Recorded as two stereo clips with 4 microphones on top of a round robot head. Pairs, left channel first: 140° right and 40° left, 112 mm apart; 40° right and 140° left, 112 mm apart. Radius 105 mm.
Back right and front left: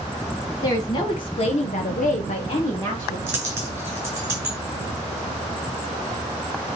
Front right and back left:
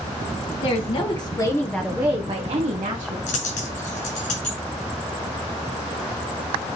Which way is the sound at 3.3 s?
35° right.